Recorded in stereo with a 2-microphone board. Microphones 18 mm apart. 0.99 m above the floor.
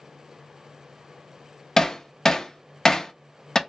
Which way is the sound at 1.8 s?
30° left (ahead or behind).